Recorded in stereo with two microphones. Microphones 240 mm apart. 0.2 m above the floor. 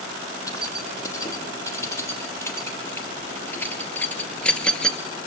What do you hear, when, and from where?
0.5 s keys jangling: 15° left (ahead or behind), 4.5 m; by 5.0 s centre (ahead or behind), 1.8 m